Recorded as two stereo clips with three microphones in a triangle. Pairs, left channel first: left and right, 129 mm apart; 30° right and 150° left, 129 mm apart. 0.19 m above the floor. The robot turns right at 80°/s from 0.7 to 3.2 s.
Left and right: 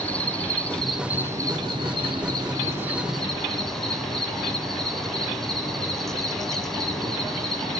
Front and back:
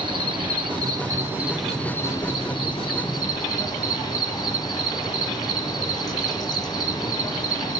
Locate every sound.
0.0 s an insect: 165° left, 1.1 m; by 7.8 s 5° left, 1.1 m